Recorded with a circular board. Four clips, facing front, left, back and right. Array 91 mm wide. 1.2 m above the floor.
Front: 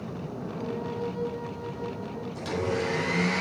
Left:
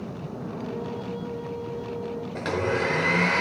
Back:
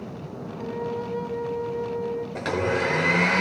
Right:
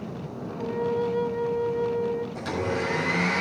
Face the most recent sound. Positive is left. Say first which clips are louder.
# left 2 dB, back 3 dB
turn(degrees=150)